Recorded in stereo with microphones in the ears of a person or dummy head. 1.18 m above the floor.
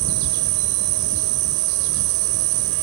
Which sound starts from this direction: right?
An insect, at 0.0 s.